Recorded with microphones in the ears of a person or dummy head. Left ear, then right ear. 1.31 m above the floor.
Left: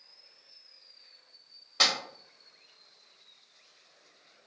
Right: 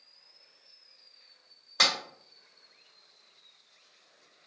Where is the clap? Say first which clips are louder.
Even; 30° right (ahead or behind), 1.8 m.